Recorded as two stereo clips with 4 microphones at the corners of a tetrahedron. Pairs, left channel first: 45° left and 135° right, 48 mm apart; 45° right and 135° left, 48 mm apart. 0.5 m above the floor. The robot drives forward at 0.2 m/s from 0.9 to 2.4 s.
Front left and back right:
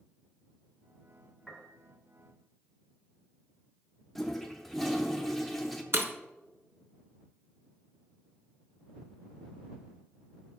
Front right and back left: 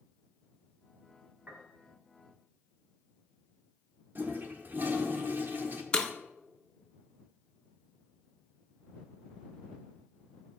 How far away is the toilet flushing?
About 0.6 m.